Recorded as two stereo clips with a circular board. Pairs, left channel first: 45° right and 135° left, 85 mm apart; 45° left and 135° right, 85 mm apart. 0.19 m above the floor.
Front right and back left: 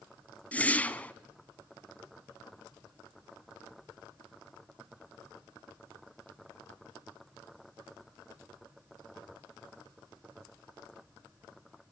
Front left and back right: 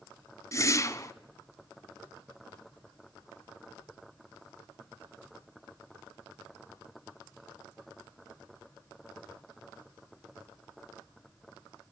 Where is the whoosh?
20° left, 0.7 m.